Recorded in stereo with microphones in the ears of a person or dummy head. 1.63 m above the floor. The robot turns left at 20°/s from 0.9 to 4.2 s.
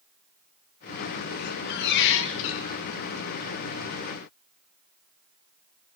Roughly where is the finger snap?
No finger snap in this recording.